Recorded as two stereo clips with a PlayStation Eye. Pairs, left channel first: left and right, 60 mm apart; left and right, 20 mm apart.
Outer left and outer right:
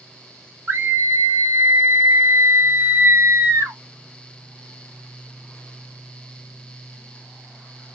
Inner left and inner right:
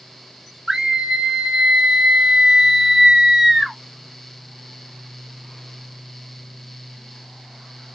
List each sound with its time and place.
0.7 s a scream: 40° right (ahead or behind), 1.8 m